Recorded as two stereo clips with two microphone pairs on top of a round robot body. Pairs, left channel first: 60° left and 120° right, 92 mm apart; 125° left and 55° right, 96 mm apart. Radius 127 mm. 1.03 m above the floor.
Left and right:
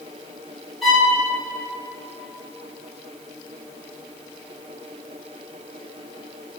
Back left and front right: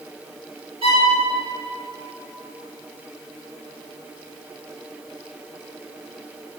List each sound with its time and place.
0.8 s a violin: 25° right, 3 m